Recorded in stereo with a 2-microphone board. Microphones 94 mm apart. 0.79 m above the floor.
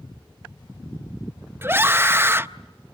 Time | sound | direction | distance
1.6 | a scream | 25° right (ahead or behind) | 0.6 m